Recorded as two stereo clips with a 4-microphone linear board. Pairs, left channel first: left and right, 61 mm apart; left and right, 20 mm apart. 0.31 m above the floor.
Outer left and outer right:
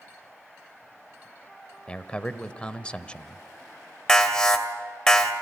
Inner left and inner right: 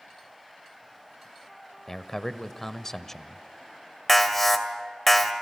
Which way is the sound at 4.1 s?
10° left (ahead or behind).